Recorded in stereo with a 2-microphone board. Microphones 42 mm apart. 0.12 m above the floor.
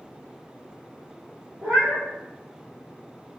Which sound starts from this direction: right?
A cat meowing, at 1.6 s.